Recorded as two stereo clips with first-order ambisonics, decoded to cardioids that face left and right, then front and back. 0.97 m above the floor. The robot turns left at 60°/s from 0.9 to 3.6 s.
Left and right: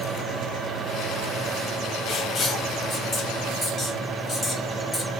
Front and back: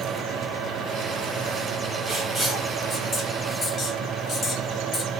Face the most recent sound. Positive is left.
turn(degrees=35)